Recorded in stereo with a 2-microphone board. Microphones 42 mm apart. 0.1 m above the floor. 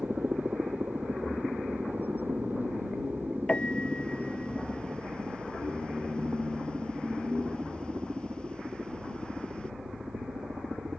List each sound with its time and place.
0.0 s a helicopter: 50° right (ahead or behind); by 11.0 s 60° right (ahead or behind)
3.5 s a piano: 25° left (ahead or behind)